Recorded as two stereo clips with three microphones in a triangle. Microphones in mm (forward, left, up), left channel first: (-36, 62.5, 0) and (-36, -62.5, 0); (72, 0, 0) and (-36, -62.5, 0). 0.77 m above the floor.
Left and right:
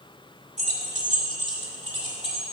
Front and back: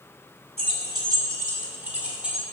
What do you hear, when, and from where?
0.6 s keys jangling: 110° right, 1.6 m; by 2.4 s 65° right, 2.5 m